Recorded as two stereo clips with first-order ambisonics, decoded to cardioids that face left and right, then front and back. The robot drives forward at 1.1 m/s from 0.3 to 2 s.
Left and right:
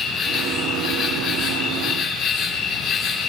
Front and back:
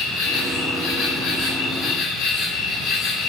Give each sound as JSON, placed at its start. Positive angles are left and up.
{"t": 0.0, "sound": "an insect", "azimuth_deg": 25, "distance_m": 5.5}